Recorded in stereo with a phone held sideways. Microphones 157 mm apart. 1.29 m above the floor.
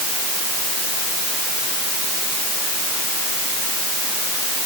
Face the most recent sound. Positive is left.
No sound to turn to.